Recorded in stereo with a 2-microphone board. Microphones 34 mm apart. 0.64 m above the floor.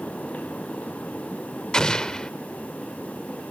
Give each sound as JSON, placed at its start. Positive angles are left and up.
{"t": 1.7, "sound": "an explosion", "side_deg": 20, "distance_m": 0.6}